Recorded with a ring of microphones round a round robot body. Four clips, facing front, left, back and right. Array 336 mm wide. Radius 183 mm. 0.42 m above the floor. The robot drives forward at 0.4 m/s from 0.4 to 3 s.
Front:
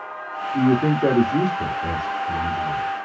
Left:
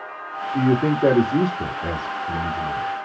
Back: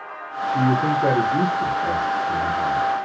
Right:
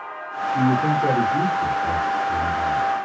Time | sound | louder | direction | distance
0.5 | a man speaking | even, front 1 dB | 55° left | 1.3 m